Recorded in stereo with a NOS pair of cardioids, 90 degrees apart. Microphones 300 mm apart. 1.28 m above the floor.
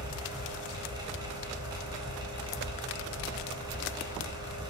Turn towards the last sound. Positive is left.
turn(degrees=-15)